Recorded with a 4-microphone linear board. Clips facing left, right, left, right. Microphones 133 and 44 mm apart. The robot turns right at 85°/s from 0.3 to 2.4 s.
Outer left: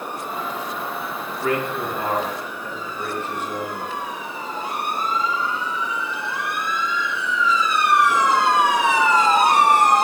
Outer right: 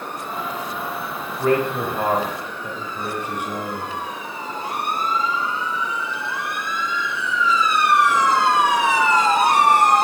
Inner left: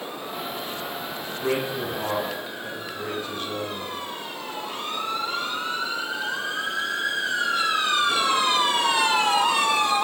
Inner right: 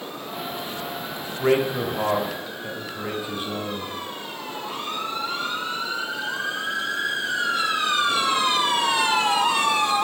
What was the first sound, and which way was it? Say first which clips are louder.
A man speaking: outer right 4 dB, inner right 6 dB; 110° right.